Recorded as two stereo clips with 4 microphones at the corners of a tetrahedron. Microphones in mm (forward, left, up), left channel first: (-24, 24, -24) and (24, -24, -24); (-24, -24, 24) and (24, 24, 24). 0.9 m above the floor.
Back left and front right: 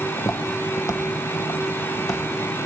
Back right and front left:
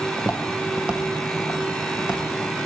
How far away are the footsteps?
About 1.3 m.